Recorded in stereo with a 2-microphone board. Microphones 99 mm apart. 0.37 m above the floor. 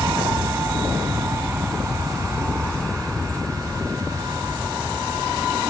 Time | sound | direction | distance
0.0 | an aircraft | 35° right (ahead or behind) | ?